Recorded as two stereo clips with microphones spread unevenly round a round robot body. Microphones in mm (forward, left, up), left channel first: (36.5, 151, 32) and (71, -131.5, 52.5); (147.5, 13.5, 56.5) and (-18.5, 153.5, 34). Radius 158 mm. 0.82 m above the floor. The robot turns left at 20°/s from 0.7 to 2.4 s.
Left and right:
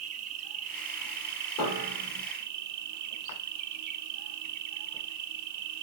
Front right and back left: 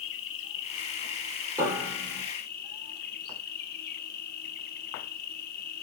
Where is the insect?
55° right, 0.8 m; by 5.8 s 90° right, 0.8 m.